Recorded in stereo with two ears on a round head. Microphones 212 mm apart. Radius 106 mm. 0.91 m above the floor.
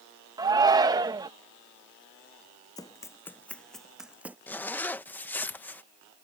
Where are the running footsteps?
15° left (ahead or behind); by 4.4 s 10° right (ahead or behind).